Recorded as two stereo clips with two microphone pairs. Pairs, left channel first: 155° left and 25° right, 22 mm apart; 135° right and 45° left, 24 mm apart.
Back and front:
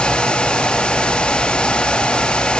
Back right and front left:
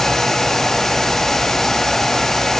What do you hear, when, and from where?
Only background noise.